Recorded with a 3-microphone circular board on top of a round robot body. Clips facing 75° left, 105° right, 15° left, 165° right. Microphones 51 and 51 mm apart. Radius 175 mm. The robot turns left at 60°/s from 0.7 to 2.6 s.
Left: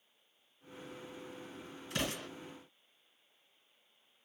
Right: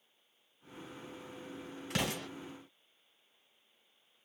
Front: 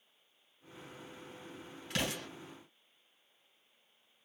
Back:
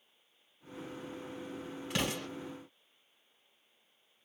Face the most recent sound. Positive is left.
turn(degrees=-130)